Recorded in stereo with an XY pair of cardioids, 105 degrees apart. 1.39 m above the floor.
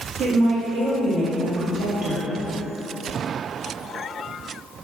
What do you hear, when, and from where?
0.2 s a woman speaking: 65° right, 1.1 m